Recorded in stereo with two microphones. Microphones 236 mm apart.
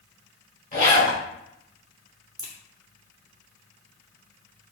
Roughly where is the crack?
Right.